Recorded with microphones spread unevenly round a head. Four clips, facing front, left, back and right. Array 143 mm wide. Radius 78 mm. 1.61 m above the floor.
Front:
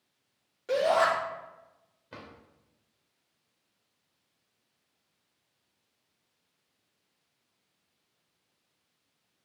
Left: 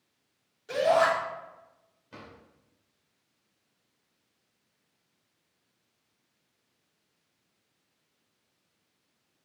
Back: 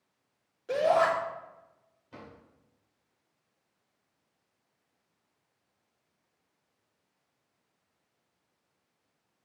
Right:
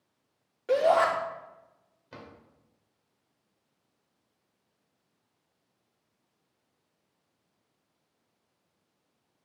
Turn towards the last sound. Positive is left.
turn(degrees=-15)